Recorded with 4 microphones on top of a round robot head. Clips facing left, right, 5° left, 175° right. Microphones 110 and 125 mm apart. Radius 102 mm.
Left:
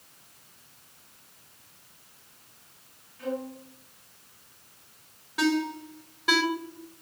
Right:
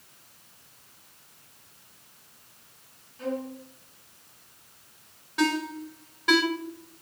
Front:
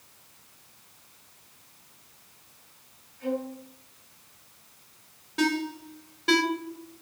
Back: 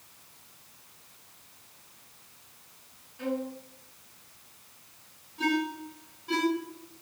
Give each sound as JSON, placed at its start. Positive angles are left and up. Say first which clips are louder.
{"t": 3.2, "sound": "a violin", "louder": "right 1 dB, front 1 dB", "azimuth_deg": -155, "distance_m": 8.5}
{"t": 5.4, "sound": "a ringtone", "louder": "left 1 dB, front 2 dB", "azimuth_deg": 5, "distance_m": 5.0}